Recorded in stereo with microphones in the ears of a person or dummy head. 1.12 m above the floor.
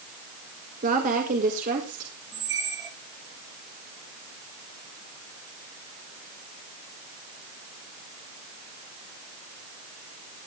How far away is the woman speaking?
About 1.6 m.